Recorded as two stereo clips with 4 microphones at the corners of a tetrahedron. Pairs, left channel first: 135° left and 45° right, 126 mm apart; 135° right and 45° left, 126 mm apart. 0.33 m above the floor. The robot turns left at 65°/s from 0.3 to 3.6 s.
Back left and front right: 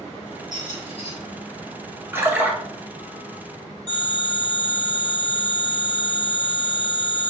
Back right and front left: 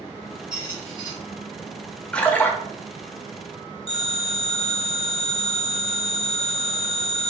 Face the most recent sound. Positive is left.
turn(degrees=-5)